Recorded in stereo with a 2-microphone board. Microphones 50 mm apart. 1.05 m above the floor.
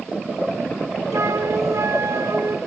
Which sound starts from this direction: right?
A flute, at 1.1 s.